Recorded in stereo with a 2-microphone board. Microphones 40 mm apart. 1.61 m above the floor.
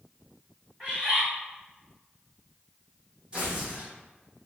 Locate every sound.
0.8 s a bird: 25° right (ahead or behind), 1.4 m
3.3 s tearing paper: 25° right (ahead or behind), 0.9 m